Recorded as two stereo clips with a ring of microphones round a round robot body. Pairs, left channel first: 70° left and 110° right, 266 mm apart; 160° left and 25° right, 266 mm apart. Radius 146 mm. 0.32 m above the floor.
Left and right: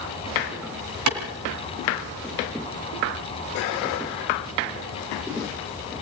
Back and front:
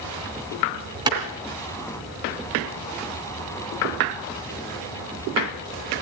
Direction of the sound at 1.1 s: 95° right.